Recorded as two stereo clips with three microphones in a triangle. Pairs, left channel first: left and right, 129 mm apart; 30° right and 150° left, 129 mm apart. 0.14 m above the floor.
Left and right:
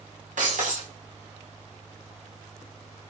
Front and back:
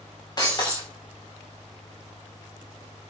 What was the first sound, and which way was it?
Breaking glass, 90° right.